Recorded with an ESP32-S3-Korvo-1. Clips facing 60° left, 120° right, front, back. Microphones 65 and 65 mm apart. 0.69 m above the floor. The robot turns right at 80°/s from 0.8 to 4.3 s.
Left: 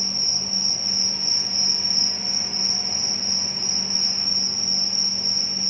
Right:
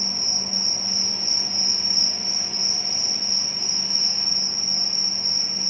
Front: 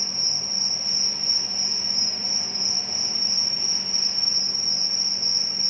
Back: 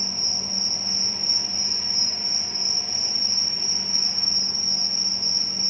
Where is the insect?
145° right, 0.8 m; by 5.7 s 135° left, 0.8 m.